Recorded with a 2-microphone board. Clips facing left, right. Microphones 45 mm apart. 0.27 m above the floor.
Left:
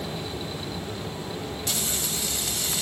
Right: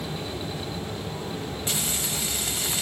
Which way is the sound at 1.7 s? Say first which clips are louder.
Right 2 dB; 20° right (ahead or behind).